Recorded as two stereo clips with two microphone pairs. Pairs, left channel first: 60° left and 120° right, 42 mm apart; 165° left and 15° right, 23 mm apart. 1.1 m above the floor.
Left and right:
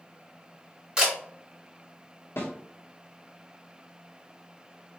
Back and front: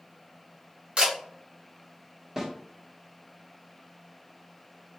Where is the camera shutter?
50° right, 1.5 m.